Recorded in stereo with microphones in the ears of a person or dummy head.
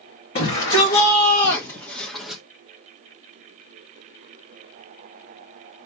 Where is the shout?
50° left (ahead or behind), 2.5 m; by 2.4 s 5° right (ahead or behind), 1.6 m.